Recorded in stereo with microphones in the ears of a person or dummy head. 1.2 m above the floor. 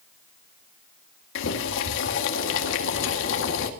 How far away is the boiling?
About 1.9 m.